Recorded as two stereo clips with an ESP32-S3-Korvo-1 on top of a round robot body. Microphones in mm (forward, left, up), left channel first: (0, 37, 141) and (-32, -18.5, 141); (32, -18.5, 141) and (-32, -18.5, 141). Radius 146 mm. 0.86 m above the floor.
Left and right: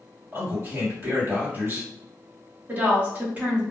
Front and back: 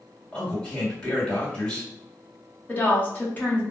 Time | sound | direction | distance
0.3 | a man speaking | 70° right | 1.8 m
2.7 | a woman speaking | 60° right | 1.2 m